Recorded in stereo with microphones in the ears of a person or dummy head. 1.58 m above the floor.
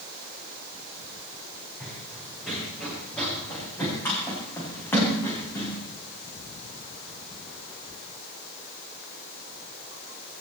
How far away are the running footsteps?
About 6 m.